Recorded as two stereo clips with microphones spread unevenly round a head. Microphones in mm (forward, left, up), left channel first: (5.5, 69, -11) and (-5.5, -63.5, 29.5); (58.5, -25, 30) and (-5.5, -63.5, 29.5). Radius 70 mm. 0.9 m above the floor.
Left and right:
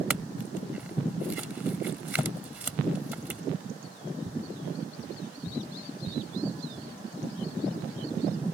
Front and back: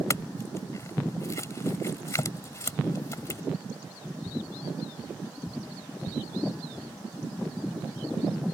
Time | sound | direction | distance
0.1 | a clink | 15° right | ?